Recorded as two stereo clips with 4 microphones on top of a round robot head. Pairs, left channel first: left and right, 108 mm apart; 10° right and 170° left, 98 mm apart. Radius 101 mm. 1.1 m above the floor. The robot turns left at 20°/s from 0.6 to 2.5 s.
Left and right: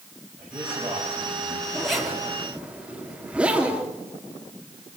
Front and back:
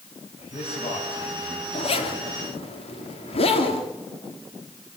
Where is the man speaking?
5° right, 7 m; by 1.6 s 25° right, 7 m.